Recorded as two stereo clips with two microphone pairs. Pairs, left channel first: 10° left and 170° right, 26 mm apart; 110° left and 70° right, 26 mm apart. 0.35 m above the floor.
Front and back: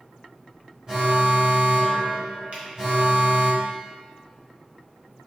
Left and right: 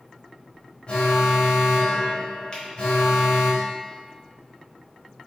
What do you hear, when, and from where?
0.9 s an alarm: 130° left, 1.2 m
2.5 s a finger snap: 160° left, 1.4 m